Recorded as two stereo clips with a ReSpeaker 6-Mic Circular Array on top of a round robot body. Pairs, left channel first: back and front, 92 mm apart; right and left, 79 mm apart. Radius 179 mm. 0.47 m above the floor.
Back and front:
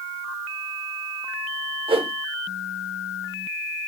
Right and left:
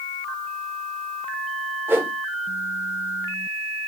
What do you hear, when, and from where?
1.9 s a whoosh: 25° left, 0.5 m